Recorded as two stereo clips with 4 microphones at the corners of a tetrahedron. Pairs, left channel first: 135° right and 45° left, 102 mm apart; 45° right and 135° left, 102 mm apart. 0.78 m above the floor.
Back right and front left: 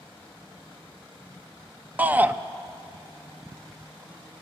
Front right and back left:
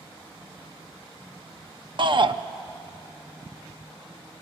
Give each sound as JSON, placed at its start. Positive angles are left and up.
{"t": 2.0, "sound": "a shout", "azimuth_deg": 115, "distance_m": 0.7}